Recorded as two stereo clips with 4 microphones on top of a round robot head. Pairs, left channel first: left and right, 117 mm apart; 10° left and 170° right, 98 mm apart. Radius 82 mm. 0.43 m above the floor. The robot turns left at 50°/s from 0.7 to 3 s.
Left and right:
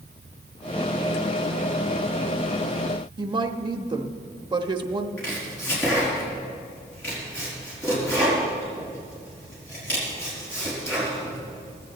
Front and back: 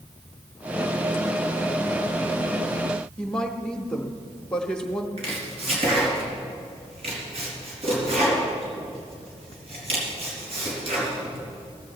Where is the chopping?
170° left, 4 m.